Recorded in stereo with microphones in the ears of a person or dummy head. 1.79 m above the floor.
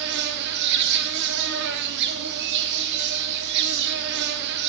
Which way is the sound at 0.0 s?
55° right (ahead or behind).